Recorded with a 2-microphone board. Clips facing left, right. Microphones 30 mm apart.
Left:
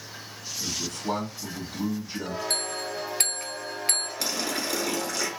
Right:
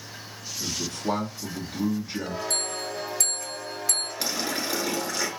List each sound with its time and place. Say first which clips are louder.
0.6 s a man speaking: right 2 dB; 40° right (ahead or behind), 1.4 m
2.5 s a bell: even; 45° left (ahead or behind), 0.6 m
4.2 s a running tap: even; 20° right (ahead or behind), 1.3 m